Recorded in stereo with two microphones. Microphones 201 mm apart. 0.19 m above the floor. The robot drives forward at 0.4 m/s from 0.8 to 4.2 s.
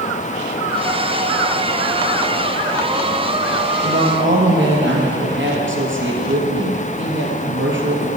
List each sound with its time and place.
3.8 s a woman speaking: 65° right (ahead or behind), 3 m; by 8.1 s 70° right (ahead or behind), 3 m